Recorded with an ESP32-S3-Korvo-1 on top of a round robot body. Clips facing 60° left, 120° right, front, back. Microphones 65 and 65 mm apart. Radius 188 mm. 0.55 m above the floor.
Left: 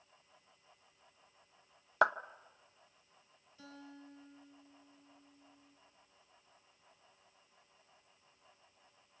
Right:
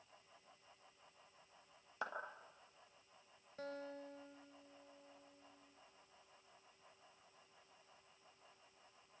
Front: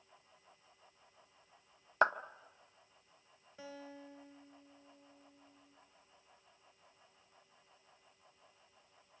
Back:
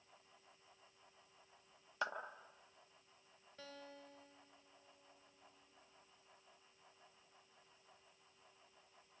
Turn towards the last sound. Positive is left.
turn(degrees=-80)